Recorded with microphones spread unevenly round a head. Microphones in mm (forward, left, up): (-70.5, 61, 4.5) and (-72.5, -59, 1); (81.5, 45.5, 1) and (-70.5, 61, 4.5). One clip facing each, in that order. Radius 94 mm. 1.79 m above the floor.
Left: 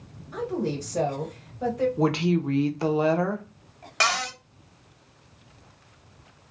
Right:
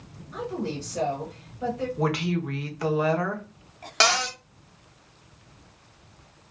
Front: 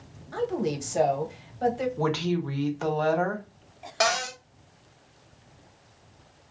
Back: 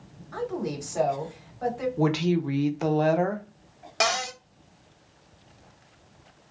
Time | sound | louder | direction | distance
0.3 | a woman speaking | left 3 dB, front 3 dB | 55° left | 1.1 m
2.0 | a woman speaking | left 1 dB, back 3 dB | 115° left | 0.7 m
4.0 | a cupboard door | right 3 dB, front 1 dB | 130° right | 1.1 m